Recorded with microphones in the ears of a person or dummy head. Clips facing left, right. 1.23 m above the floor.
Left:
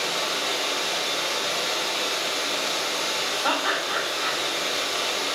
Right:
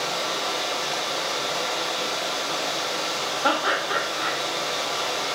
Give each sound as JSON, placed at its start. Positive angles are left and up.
{"t": 0.0, "sound": "running water", "side_deg": 55, "distance_m": 1.8}
{"t": 3.4, "sound": "laughter", "side_deg": -35, "distance_m": 0.8}